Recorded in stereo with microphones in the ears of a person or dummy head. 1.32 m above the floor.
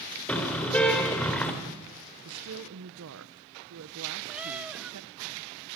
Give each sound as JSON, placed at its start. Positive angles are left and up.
{"t": 0.3, "sound": "a car horn", "side_deg": 5, "distance_m": 2.5}
{"t": 2.2, "sound": "a woman speaking", "side_deg": -75, "distance_m": 0.9}
{"t": 4.3, "sound": "a cat meowing", "side_deg": -10, "distance_m": 1.0}